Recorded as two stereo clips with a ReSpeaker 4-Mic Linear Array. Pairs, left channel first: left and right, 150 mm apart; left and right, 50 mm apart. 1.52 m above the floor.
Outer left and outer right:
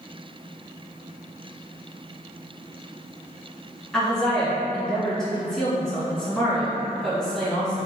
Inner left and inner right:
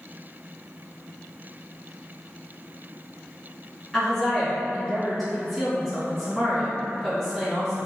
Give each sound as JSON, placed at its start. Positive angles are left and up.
{"t": 3.9, "sound": "a woman speaking", "side_deg": 5, "distance_m": 1.7}